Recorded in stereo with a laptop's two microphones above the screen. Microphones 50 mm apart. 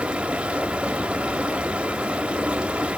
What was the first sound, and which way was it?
Running water, 20° right (ahead or behind).